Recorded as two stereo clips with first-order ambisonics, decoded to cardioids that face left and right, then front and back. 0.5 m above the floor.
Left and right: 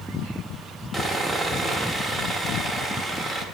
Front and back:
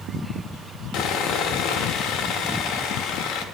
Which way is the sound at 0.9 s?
Straight ahead.